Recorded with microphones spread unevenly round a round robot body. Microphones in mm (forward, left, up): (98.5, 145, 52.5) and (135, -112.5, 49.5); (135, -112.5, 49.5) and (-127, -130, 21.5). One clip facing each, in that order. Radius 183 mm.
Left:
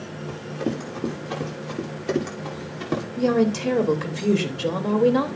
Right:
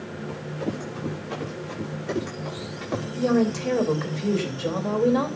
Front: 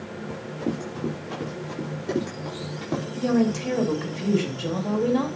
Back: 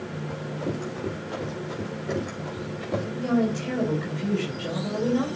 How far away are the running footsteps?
About 7.5 m.